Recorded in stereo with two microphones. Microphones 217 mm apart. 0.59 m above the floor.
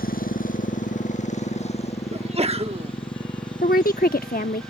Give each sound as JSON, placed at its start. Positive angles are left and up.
{"t": 0.0, "sound": "a motorcycle", "side_deg": 40}
{"t": 2.1, "sound": "a sneeze", "side_deg": -30}
{"t": 3.6, "sound": "a woman speaking", "side_deg": 40}